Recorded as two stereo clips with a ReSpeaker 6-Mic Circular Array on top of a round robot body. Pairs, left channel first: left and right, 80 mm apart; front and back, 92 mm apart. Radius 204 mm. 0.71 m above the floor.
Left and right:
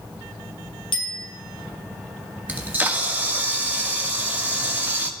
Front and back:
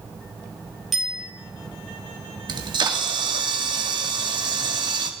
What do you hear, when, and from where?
0.9 s a bicycle bell: 90° left, 4.5 m
2.5 s a camera shutter: 155° right, 1.9 m